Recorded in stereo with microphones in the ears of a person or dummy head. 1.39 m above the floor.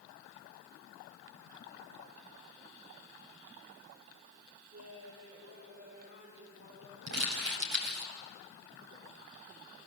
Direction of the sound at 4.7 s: 50° right (ahead or behind).